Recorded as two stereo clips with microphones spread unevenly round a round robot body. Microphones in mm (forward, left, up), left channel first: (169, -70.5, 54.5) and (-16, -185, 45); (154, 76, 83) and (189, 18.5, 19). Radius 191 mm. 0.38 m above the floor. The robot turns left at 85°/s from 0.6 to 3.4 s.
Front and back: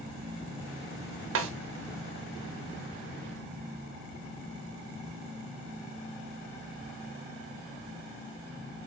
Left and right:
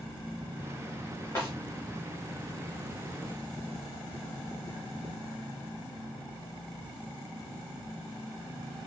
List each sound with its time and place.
1.4 s a snare drum: 150° right, 0.5 m; by 1.5 s 165° right, 0.5 m